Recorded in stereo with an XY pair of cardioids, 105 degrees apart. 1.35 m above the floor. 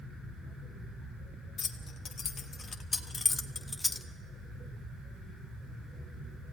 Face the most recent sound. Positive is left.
turn(degrees=10)